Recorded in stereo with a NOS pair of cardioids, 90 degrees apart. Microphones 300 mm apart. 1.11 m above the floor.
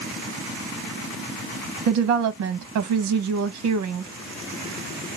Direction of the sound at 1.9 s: 65° right.